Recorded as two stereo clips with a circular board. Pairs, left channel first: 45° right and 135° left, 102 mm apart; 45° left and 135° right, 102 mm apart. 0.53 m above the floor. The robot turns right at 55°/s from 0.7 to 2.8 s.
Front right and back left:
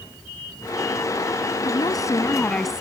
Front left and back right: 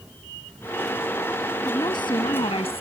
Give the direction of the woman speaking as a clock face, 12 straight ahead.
12 o'clock.